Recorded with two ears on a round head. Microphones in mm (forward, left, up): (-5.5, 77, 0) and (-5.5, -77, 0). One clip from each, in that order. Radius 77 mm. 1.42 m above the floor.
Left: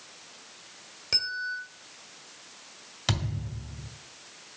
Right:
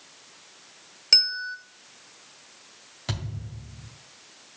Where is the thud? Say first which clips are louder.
Left 5 dB; 35° left (ahead or behind), 2 m.